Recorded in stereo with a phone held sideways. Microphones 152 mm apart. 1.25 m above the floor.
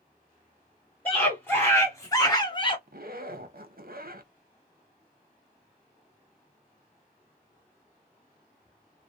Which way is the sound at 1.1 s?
10° left (ahead or behind).